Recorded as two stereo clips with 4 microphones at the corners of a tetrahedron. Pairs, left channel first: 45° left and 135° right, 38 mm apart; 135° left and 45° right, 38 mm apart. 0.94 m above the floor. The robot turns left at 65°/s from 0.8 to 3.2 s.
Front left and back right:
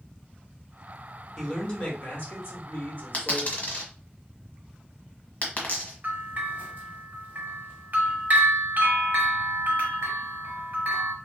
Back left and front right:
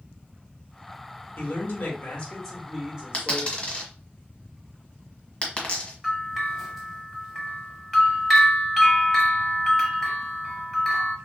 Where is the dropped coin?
80° left, 1.3 m; by 5.9 s 75° left, 1.3 m.